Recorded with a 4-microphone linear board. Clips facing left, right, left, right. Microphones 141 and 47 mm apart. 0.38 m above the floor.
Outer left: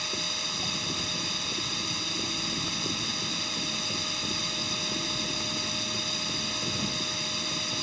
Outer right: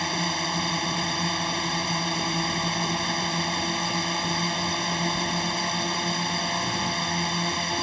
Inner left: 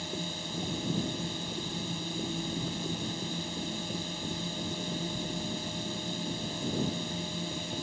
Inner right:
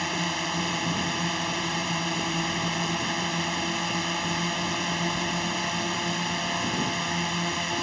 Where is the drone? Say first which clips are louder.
Outer right 10 dB, inner right 10 dB; 65° right (ahead or behind).